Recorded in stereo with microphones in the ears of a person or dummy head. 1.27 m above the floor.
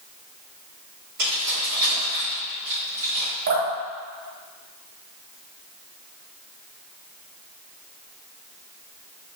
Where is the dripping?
50° right (ahead or behind), 1.5 m.